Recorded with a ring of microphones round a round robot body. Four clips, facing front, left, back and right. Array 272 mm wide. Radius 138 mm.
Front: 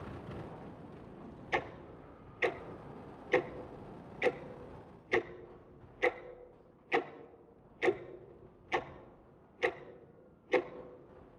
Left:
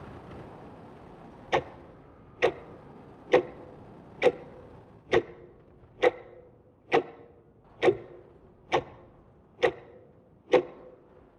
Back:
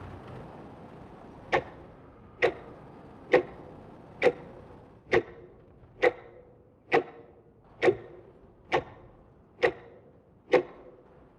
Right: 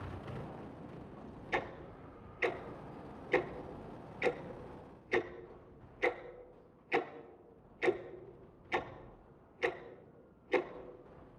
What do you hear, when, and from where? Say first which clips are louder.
1.5 s ticking: left 9 dB, back 7 dB; 125° left, 0.5 m